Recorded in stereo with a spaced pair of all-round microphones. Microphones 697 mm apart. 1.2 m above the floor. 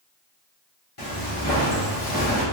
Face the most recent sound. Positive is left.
turn(degrees=35)  # may be behind; listen again after turning